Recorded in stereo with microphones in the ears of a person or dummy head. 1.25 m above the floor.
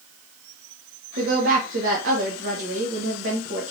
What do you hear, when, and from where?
1.2 s a woman speaking: 55° right (ahead or behind), 1.0 m